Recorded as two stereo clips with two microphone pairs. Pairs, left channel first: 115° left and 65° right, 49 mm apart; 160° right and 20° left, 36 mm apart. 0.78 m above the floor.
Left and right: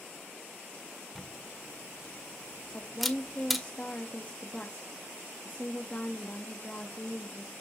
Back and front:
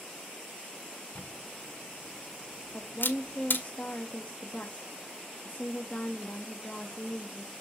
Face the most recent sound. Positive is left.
turn(degrees=160)